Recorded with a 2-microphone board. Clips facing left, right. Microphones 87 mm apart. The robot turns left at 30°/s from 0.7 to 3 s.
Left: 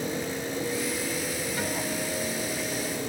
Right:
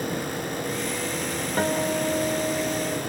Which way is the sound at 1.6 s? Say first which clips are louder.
Right 10 dB; 50° right.